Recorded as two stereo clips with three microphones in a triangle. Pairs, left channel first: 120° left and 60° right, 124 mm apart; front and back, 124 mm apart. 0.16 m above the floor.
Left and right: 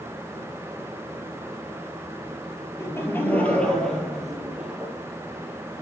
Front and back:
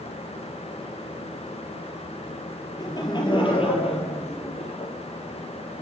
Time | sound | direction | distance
2.8 | laughter | 55° left | 3 m